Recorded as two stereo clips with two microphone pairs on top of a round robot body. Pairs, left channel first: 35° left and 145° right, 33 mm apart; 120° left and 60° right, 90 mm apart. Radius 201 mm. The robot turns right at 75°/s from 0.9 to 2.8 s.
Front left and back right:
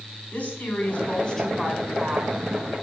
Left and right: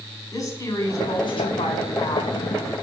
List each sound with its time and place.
0.3 s a woman speaking: 70° left, 3.5 m; by 2.3 s 175° left, 3.5 m